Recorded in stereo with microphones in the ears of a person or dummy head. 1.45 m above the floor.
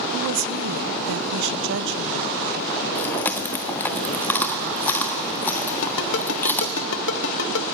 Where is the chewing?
15° left (ahead or behind), 1.2 m.